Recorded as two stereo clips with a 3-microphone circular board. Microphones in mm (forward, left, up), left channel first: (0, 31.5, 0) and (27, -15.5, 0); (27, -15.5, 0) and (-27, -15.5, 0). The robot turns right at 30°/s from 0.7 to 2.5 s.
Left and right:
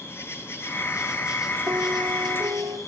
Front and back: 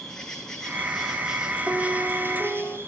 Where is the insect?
80° left, 1.6 m; by 2.9 s 135° left, 1.6 m.